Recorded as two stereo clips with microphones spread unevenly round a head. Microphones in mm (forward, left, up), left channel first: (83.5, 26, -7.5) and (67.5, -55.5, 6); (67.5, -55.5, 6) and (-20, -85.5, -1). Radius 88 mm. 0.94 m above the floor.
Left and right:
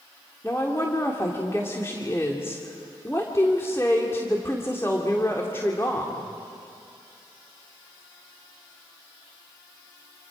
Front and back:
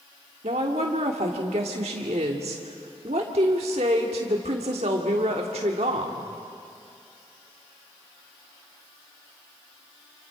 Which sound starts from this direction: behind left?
A woman speaking, at 0.4 s.